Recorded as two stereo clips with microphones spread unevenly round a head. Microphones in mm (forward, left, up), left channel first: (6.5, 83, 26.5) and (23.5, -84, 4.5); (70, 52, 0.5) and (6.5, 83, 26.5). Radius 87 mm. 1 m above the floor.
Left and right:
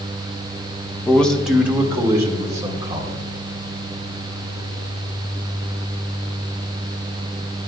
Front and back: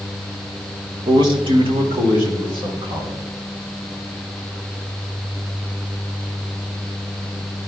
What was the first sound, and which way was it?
A man speaking, straight behind.